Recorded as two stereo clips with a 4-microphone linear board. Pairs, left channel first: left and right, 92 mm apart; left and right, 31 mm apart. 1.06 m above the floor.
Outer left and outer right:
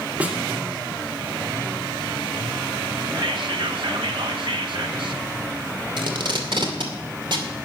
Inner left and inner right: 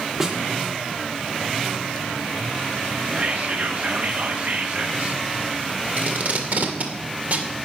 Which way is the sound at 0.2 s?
15° right (ahead or behind).